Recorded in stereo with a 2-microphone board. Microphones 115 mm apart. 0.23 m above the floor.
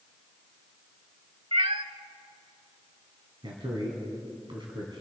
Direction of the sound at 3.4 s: 45° right (ahead or behind).